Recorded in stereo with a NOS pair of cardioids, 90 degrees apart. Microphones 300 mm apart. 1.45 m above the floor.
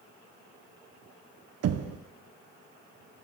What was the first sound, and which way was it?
Knocking, 55° right.